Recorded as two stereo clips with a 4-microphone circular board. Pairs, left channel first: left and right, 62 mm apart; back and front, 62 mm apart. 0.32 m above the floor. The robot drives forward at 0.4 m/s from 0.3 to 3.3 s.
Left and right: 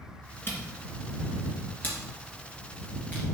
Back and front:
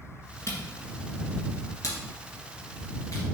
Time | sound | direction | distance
0.5 | a camera shutter | 140° left | 1.8 m